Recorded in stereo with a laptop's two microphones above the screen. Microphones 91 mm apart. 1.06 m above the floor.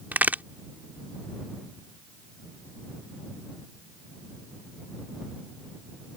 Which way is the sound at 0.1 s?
20° right (ahead or behind).